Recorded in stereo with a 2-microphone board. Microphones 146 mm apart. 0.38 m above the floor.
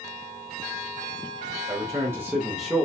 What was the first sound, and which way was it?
A man speaking, 30° right (ahead or behind).